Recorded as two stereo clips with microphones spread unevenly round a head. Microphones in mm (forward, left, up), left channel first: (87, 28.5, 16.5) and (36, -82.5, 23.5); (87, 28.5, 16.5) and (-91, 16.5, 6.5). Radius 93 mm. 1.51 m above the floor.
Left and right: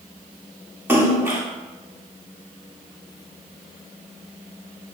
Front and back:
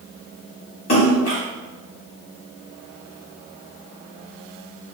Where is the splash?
40° right, 3 m.